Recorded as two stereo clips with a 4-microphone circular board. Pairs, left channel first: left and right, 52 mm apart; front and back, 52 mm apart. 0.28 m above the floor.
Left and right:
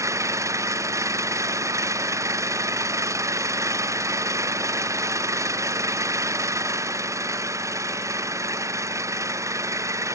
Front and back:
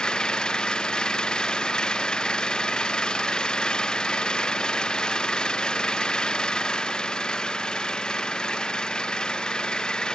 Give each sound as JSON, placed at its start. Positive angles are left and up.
{"t": 0.0, "sound": "an engine running", "azimuth_deg": -75}